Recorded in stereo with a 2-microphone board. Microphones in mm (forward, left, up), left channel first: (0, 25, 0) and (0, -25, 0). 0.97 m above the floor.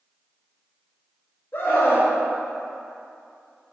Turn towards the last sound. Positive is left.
turn(degrees=50)  # may be behind; listen again after turning